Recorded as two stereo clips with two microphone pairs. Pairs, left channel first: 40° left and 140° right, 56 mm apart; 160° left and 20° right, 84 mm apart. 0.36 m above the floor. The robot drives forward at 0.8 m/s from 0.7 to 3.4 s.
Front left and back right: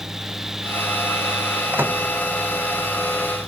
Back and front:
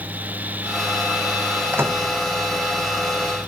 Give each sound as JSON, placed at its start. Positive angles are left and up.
{"t": 1.7, "sound": "a microwave", "azimuth_deg": -85}